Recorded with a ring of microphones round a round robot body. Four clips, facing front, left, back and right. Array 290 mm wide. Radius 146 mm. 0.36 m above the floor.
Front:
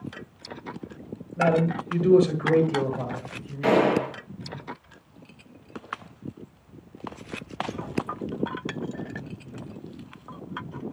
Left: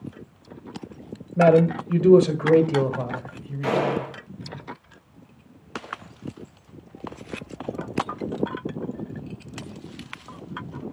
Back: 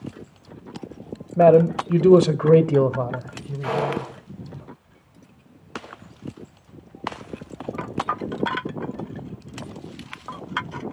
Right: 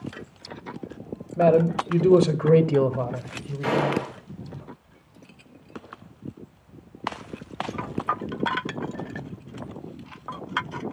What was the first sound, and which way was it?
A man speaking, 165° left.